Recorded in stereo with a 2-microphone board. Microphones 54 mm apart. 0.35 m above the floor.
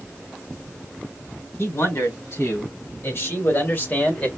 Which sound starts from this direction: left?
A man speaking, at 1.6 s.